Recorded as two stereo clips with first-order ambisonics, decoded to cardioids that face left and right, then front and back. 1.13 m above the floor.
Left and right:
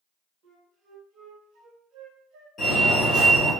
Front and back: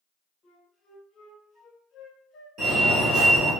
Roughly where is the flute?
Ahead right.